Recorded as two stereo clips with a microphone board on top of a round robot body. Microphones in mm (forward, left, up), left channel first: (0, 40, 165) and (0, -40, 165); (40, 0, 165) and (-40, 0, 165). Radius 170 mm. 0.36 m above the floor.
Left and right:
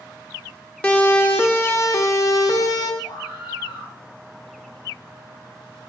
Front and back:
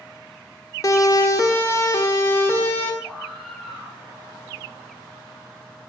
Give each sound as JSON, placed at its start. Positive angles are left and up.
{"t": 0.8, "sound": "a siren", "azimuth_deg": 20, "distance_m": 2.5}
{"t": 3.0, "sound": "a scream", "azimuth_deg": 90, "distance_m": 5.5}